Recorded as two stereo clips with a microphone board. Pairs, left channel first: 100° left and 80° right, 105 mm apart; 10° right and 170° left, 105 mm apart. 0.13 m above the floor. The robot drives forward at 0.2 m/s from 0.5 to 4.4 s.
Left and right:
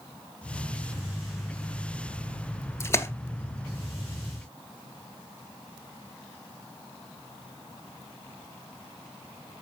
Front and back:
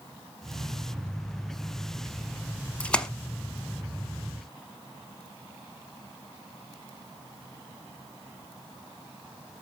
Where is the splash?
60° left, 0.7 m; by 3.1 s 70° left, 0.7 m.